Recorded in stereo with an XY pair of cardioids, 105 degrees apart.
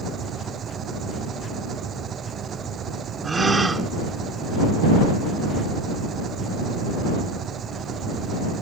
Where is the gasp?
25° right.